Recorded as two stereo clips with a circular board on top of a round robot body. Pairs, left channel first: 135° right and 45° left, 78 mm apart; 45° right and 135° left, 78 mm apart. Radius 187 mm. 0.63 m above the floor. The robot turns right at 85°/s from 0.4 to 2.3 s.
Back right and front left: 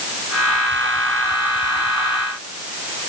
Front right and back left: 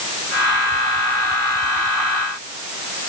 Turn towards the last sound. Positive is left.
No sound to turn to.